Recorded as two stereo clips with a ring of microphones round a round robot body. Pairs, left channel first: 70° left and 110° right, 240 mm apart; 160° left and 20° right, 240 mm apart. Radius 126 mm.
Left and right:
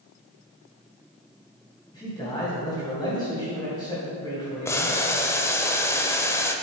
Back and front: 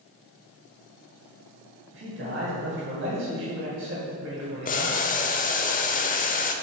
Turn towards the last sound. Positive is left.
turn(degrees=140)